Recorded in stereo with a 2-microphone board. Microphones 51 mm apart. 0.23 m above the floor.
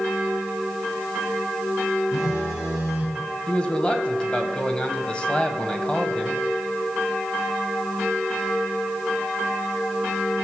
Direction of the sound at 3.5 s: 20° left (ahead or behind).